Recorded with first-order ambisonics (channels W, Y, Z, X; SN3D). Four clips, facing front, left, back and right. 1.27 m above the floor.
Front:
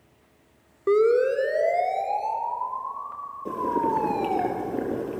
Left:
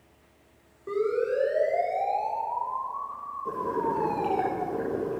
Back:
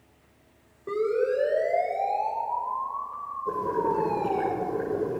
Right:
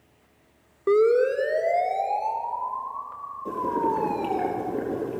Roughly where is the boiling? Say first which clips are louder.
Right 3 dB, front 2 dB; ahead.